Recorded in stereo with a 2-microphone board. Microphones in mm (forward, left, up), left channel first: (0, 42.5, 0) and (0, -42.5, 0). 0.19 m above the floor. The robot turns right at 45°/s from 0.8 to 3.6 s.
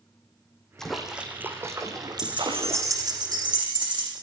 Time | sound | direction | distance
0.8 | a splash | 175° left | 4 m
2.2 | keys jangling | 170° right | 8 m